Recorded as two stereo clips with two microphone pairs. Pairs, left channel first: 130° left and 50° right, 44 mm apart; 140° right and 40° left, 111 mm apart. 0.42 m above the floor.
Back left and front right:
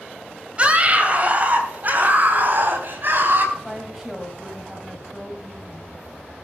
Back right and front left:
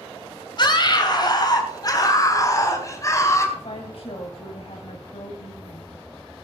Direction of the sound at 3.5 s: 130° right.